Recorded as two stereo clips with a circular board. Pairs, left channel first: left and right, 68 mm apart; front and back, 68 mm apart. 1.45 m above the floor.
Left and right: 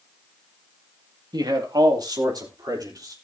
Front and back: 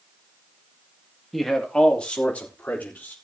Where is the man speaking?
90° right, 2 m; by 3.1 s 65° right, 4.5 m.